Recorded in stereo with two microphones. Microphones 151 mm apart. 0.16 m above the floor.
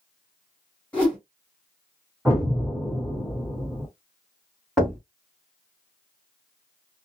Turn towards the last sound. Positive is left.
turn(degrees=0)  # may be behind; listen again after turning